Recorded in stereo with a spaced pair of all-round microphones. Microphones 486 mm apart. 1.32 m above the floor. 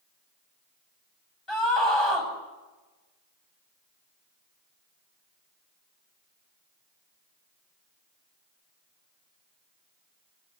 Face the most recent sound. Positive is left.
turn(degrees=70)  # may be behind; listen again after turning